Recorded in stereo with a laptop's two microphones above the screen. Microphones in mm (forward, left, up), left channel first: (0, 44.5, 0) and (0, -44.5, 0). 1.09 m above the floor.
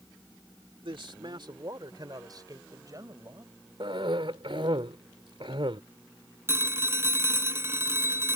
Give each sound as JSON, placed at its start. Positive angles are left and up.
{"t": 0.8, "sound": "a man speaking", "side_deg": -70}
{"t": 3.8, "sound": "a cough", "side_deg": -75}
{"t": 6.5, "sound": "a phone ringing", "side_deg": -30}